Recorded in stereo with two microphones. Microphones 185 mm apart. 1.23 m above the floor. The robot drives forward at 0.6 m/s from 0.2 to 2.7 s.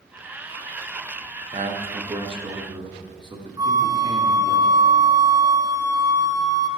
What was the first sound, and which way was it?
A man speaking, 40° right (ahead or behind).